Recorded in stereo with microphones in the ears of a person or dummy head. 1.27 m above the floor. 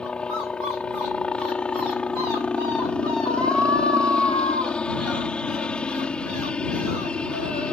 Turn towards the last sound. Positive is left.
turn(degrees=5)  # may be behind; listen again after turning